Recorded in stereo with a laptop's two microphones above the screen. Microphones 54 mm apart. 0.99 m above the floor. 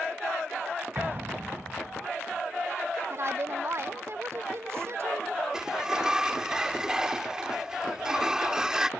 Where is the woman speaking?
55° right (ahead or behind).